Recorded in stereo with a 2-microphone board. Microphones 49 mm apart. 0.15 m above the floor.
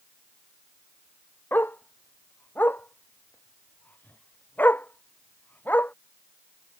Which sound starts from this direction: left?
A dog barking, at 1.5 s.